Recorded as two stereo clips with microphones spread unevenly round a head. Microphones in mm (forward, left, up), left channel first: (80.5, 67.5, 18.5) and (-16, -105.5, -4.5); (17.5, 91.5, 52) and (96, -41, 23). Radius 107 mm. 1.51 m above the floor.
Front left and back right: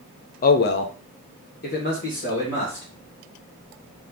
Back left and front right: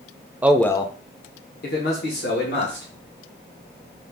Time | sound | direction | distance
0.4 | a man speaking | 25° left | 0.6 m